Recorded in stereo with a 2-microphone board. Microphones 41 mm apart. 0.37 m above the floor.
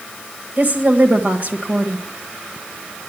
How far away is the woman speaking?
About 1.3 m.